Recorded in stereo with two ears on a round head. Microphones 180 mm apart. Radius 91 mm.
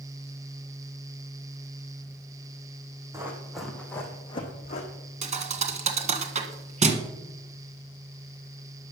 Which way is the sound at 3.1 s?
15° right (ahead or behind).